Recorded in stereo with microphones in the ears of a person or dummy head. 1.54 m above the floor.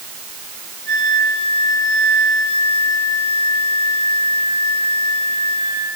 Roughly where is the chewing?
I don't hear chewing.